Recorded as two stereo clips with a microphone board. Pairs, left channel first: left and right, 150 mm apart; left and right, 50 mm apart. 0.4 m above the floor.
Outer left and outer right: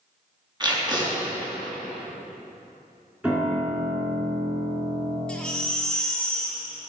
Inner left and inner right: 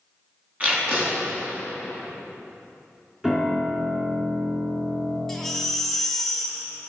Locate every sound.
0.6 s tape being pulled: 30° right (ahead or behind), 3.5 m
3.2 s a piano: 10° right (ahead or behind), 2.0 m
5.3 s a baby crying: 5° left (ahead or behind), 1.4 m